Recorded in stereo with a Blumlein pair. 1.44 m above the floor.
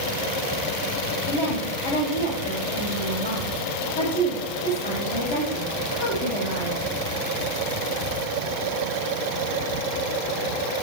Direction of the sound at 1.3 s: 60° left.